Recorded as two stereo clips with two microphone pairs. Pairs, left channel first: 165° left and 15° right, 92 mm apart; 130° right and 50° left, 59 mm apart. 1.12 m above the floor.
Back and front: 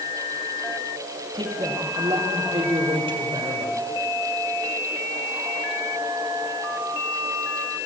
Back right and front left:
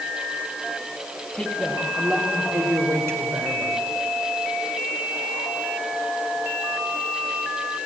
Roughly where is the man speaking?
Ahead right.